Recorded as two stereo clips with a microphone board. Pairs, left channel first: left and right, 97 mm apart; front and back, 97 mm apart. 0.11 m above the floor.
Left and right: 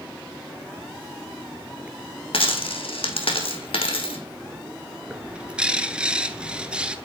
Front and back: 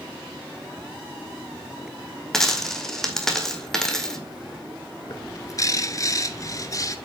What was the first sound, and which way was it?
A dropped coin, 85° left.